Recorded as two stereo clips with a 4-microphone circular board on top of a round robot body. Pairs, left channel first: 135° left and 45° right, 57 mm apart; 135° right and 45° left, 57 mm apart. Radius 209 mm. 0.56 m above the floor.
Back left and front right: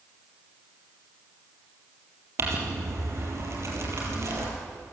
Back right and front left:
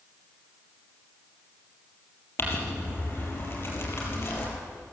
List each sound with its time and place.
2.4 s crumpling: 85° right, 4 m